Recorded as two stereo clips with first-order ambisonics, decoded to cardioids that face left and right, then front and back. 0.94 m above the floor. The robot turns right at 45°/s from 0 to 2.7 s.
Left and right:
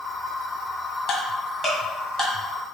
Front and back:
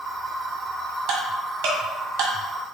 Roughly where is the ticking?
Behind left.